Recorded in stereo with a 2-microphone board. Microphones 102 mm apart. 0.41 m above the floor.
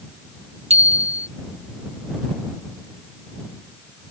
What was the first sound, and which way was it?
A bicycle bell, 85° right.